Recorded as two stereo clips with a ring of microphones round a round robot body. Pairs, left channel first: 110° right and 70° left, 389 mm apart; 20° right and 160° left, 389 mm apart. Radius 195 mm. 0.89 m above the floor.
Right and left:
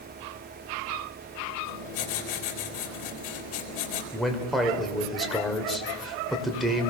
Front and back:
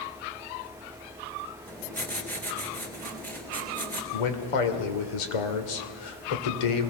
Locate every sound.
1.7 s writing: 110° right, 4 m
4.1 s a man speaking: 25° right, 3 m